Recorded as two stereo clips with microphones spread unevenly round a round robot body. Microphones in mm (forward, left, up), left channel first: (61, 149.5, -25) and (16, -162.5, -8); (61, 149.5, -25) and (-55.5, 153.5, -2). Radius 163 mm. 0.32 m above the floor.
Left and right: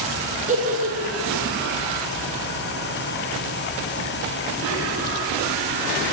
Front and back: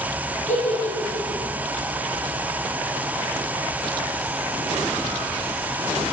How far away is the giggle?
About 3 m.